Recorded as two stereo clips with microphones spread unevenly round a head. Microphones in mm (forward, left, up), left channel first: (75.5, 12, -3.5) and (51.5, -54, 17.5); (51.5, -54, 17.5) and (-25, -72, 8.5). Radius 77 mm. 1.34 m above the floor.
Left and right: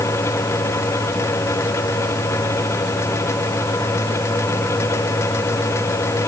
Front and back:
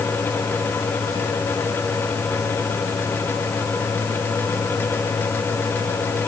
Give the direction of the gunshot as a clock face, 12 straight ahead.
I don't hear a gunshot.